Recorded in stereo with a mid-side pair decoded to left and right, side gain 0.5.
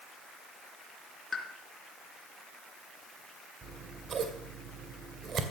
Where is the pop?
25° left, 3.5 m.